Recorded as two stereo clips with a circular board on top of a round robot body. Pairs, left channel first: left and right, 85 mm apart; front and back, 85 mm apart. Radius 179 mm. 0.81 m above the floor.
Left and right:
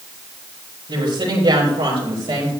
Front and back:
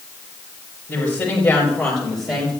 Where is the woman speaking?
70° right, 4 m; by 2.5 s 95° right, 4 m.